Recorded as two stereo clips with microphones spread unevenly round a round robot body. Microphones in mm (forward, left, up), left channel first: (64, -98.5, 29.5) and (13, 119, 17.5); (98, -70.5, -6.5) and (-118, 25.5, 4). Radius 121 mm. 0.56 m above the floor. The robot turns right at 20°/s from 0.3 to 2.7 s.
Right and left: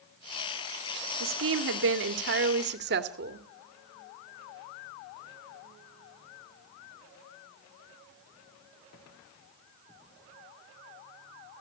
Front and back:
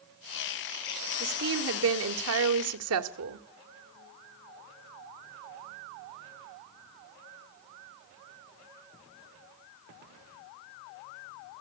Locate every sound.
1.2 s a woman speaking: 110° left, 1.8 m; by 3.5 s 140° left, 1.8 m